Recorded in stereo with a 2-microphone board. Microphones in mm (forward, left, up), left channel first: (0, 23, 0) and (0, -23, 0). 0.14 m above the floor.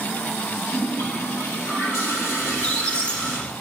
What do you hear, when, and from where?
0.7 s a toilet flushing: 70° left (ahead or behind), 4.5 m
2.4 s a squeak: 20° left (ahead or behind), 1.5 m